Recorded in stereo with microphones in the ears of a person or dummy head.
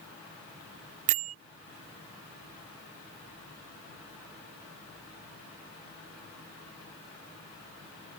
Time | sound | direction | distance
1.1 | a bell | 50° right (ahead or behind) | ?